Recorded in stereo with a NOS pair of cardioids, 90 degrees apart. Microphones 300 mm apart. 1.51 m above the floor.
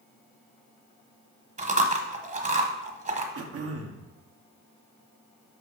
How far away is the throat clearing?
About 1.2 m.